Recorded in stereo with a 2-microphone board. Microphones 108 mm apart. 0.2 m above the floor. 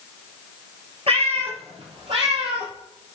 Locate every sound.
1.1 s a cat meowing: 65° right (ahead or behind), 2.5 m